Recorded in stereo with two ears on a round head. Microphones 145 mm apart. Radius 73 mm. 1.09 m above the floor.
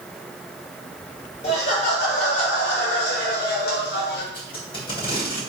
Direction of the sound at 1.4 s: 45° left (ahead or behind).